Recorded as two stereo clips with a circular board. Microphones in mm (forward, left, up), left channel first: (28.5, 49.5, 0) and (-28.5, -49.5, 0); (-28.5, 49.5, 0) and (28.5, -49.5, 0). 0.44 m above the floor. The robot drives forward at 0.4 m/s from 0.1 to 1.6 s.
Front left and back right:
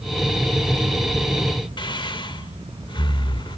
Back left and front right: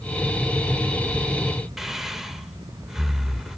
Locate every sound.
1.8 s breathing: 25° left, 0.8 m